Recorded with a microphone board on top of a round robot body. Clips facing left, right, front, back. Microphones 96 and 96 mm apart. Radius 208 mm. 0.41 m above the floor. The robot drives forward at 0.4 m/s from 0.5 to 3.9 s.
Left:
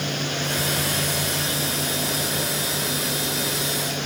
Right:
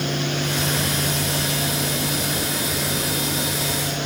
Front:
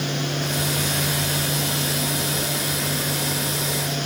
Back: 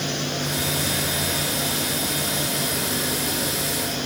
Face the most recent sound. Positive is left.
No sound to turn to.